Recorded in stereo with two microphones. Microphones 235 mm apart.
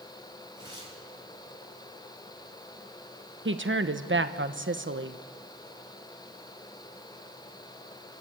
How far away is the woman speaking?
About 1.0 m.